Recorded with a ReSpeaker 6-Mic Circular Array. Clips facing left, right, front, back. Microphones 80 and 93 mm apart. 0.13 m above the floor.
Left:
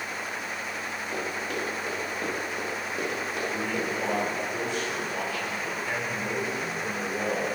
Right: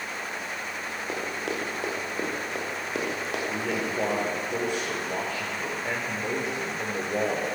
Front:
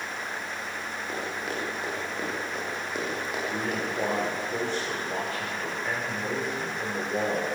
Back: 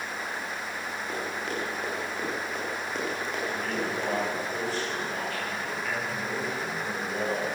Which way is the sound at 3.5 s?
65° right.